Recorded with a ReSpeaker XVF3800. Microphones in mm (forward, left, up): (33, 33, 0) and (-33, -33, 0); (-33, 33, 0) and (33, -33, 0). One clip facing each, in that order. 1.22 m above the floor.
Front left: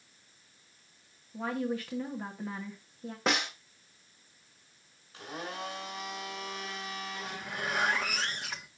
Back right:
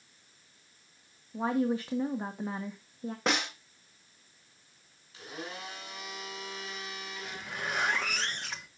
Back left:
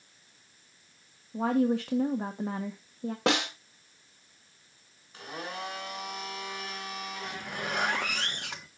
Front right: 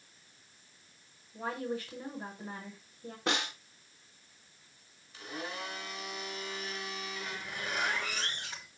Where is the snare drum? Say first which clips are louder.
Even, back left 6 dB; 135° left, 1.8 m.